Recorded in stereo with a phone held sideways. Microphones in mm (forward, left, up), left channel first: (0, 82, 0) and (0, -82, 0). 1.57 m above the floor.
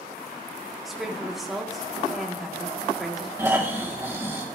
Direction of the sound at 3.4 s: 15° right (ahead or behind).